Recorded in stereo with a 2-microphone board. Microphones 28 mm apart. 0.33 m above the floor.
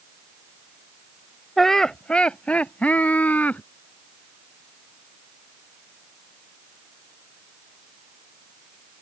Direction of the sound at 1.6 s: 5° left (ahead or behind).